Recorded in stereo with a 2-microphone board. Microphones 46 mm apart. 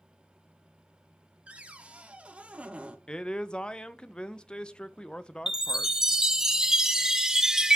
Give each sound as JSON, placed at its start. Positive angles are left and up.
{"t": 1.5, "sound": "a cupboard door", "side_deg": -25, "distance_m": 0.7}
{"t": 3.1, "sound": "a man speaking", "side_deg": 20, "distance_m": 0.5}
{"t": 5.5, "sound": "a chime", "side_deg": -10, "distance_m": 0.5}